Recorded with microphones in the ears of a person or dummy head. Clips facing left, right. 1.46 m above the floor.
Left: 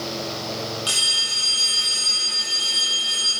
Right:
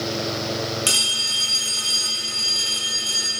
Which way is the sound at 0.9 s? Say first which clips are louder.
Right 3 dB; 30° right (ahead or behind).